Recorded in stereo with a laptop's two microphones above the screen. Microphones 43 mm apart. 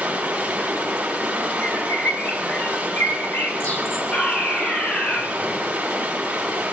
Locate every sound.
0.0 s running water: 25° right (ahead or behind), 6 m
1.6 s a bird: 60° left (ahead or behind), 3.5 m
4.1 s a fire alarm: 35° left (ahead or behind), 6 m